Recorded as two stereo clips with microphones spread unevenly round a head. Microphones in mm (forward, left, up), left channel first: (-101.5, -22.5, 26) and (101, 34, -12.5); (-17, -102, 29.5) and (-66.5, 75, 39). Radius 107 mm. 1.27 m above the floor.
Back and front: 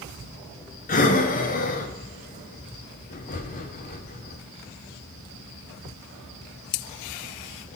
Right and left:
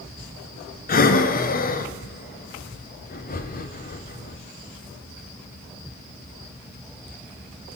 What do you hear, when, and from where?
0.9 s breathing: 110° right, 0.9 m